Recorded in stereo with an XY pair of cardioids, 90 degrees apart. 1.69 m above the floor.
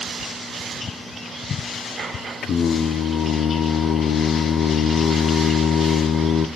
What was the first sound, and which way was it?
Singing, 65° left.